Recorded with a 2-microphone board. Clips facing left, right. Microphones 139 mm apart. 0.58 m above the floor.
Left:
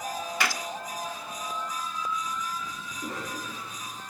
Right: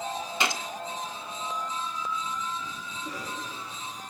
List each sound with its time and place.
0.4 s a gunshot: 20° right (ahead or behind), 1.3 m
2.9 s a cough: 50° left (ahead or behind), 5.5 m